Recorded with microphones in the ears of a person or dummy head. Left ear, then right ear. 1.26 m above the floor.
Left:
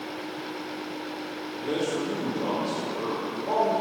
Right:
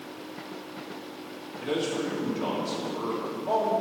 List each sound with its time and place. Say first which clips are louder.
1.6 s a man speaking: even; centre (ahead or behind), 2 m